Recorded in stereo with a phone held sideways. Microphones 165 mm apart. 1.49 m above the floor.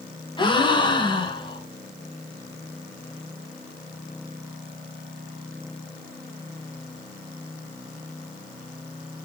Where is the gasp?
30° left (ahead or behind), 2 m.